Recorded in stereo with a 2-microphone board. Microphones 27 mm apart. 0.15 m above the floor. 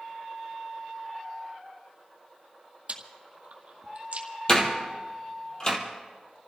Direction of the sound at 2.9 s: 55° right (ahead or behind).